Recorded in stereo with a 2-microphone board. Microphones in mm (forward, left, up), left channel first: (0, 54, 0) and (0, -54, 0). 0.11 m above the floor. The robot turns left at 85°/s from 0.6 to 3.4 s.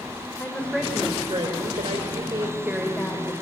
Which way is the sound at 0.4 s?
10° left.